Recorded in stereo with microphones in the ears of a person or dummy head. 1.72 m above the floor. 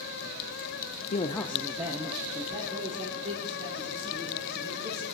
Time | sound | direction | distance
1.1 | a man speaking | 45° left (ahead or behind) | 0.6 m